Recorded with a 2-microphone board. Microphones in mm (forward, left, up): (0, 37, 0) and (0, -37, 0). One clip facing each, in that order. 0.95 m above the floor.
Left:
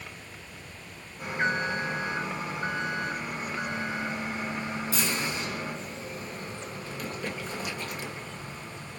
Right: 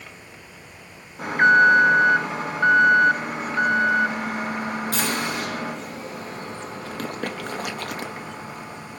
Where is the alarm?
60° right (ahead or behind), 0.6 m.